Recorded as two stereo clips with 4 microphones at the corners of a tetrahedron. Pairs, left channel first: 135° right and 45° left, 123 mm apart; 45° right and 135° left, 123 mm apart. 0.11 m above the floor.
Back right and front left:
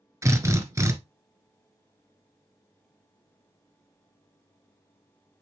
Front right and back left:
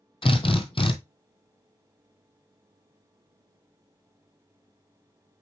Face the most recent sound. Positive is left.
turn(degrees=-15)